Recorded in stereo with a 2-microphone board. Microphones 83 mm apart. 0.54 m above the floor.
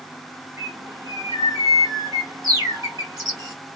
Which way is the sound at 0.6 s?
45° right (ahead or behind).